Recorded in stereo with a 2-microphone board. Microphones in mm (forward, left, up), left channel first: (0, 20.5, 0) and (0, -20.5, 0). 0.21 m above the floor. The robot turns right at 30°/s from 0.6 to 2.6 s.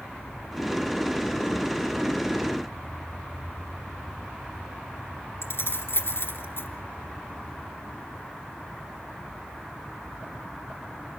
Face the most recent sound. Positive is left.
turn(degrees=65)  # may be behind; listen again after turning